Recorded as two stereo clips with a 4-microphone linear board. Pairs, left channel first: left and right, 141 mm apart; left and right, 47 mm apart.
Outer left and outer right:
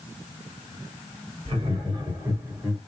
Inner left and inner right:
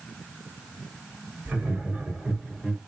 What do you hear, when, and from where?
1.4 s laughter: 40° right (ahead or behind), 1.5 m; by 2.8 s 15° right (ahead or behind), 1.2 m